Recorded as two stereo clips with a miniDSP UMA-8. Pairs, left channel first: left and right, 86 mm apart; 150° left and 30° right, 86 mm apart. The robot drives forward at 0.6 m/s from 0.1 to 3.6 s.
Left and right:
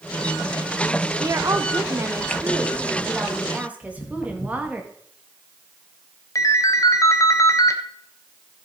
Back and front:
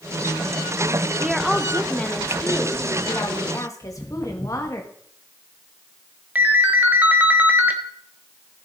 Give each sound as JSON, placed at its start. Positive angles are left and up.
{"t": 1.2, "sound": "a woman speaking", "azimuth_deg": -105, "distance_m": 0.8}
{"t": 3.8, "sound": "footsteps", "azimuth_deg": 75, "distance_m": 3.0}
{"t": 6.3, "sound": "a ringtone", "azimuth_deg": 40, "distance_m": 1.1}